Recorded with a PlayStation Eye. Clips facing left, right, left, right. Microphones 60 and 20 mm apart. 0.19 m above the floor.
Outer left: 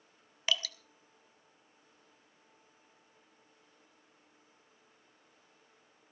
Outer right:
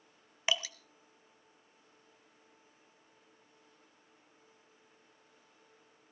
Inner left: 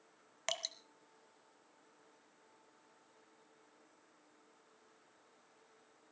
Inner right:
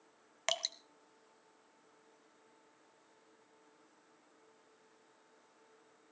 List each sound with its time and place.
0.5 s dripping: 20° right (ahead or behind), 0.8 m